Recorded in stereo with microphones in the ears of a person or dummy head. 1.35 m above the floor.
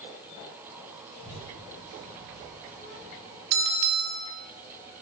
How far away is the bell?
About 0.5 m.